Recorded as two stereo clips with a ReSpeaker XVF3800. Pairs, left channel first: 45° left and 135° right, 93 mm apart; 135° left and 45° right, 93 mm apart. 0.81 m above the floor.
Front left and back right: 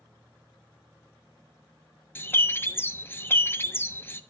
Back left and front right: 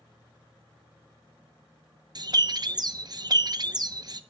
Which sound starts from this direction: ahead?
A bird, at 2.1 s.